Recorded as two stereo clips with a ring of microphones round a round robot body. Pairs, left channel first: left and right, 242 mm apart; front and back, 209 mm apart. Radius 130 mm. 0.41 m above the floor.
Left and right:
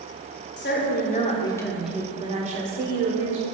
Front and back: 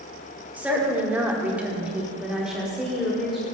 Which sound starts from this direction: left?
A woman speaking, at 0.6 s.